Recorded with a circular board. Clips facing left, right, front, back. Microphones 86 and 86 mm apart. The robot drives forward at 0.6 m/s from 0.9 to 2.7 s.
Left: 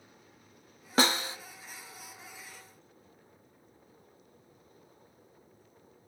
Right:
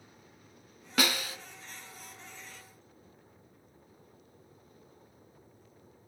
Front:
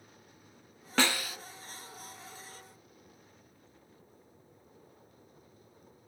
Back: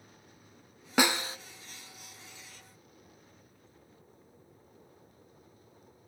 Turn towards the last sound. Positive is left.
turn(degrees=165)